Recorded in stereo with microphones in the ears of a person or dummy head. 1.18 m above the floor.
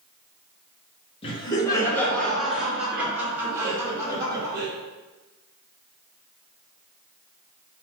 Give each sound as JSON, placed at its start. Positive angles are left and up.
{"t": 1.2, "sound": "laughter", "side_deg": 30, "distance_m": 0.9}